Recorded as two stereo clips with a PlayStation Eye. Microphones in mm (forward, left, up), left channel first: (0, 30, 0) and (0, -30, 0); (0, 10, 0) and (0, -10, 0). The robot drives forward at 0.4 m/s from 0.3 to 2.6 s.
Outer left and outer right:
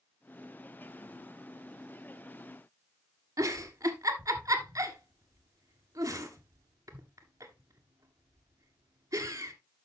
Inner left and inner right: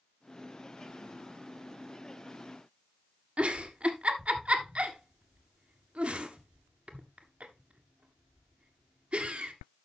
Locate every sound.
3.4 s a giggle: 75° right (ahead or behind), 1.3 m